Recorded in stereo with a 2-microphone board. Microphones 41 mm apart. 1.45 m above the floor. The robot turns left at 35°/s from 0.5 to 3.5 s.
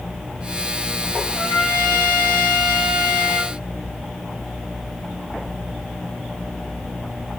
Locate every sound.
1.3 s a trumpet: 125° left, 0.8 m; by 3.5 s 50° left, 0.8 m